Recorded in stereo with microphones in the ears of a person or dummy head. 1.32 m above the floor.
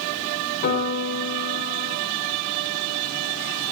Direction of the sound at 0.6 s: 50° left (ahead or behind).